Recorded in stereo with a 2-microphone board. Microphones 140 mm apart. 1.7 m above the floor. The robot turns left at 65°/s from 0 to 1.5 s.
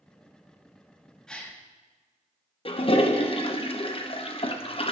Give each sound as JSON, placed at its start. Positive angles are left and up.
{"t": 1.3, "sound": "a gasp", "side_deg": 5, "distance_m": 1.3}
{"t": 2.6, "sound": "a toilet flushing", "side_deg": 45, "distance_m": 0.9}